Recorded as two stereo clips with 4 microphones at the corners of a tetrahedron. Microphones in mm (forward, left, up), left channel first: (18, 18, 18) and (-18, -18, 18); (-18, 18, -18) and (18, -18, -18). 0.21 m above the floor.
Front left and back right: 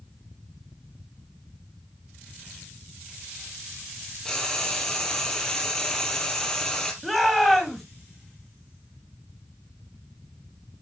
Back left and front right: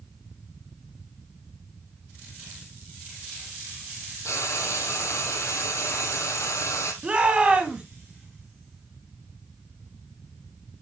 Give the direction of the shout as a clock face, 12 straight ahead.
1 o'clock.